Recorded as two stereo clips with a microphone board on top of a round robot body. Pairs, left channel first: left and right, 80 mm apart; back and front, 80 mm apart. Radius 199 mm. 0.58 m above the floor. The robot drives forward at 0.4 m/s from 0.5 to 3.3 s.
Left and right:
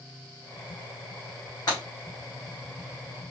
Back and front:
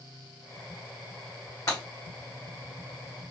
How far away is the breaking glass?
About 1.5 m.